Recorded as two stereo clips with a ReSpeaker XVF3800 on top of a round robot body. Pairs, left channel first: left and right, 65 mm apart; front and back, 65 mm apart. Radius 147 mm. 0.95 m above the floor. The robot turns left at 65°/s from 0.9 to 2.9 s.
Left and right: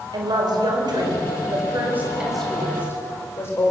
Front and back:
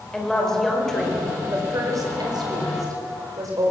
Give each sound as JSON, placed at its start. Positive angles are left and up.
{"t": 0.1, "sound": "a woman speaking", "azimuth_deg": -85, "distance_m": 5.0}